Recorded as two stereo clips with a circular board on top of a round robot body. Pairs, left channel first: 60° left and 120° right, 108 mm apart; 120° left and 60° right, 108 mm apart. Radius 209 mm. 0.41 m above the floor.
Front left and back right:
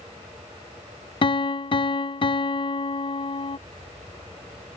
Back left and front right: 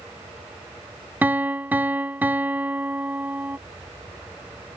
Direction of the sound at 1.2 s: 15° left.